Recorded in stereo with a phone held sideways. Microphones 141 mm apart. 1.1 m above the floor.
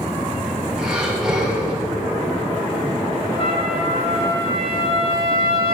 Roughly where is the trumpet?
Left.